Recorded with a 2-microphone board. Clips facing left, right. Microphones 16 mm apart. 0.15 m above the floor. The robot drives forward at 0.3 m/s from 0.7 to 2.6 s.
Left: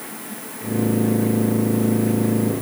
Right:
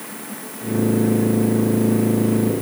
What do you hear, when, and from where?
Only background noise.